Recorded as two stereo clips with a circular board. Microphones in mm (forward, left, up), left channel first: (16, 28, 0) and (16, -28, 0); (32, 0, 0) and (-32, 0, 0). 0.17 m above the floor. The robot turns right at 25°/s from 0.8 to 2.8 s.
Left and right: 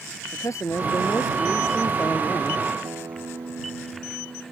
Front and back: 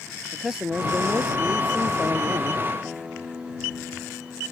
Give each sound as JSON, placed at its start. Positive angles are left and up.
{"t": 0.3, "sound": "a man speaking", "azimuth_deg": 95}
{"t": 2.8, "sound": "a guitar", "azimuth_deg": -100}